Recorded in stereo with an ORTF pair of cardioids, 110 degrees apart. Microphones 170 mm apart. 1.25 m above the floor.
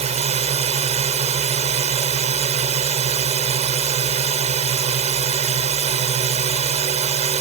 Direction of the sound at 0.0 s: 40° right.